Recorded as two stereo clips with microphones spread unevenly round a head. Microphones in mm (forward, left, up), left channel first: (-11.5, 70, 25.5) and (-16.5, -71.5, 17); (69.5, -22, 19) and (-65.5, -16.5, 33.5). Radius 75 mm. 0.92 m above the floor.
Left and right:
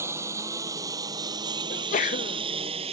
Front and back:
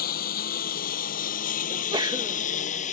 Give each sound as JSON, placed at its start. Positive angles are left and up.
{"t": 0.0, "sound": "a lawn mower", "azimuth_deg": -20}
{"t": 1.7, "sound": "a sneeze", "azimuth_deg": 115}